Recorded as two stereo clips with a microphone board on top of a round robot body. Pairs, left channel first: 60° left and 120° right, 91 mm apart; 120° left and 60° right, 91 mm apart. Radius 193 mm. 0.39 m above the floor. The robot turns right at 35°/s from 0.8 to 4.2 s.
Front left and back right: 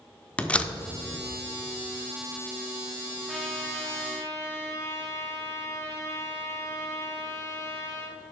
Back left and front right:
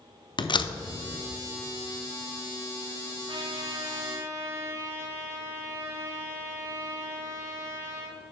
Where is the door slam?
135° left, 0.8 m.